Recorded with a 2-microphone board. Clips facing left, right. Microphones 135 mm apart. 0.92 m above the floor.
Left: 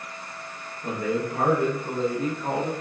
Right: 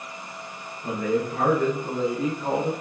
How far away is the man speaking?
About 0.8 m.